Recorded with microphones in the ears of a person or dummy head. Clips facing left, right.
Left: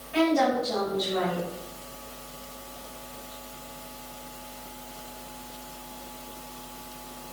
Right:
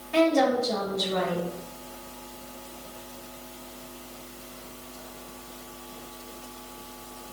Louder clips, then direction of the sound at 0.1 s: Right 2 dB; 55° right (ahead or behind).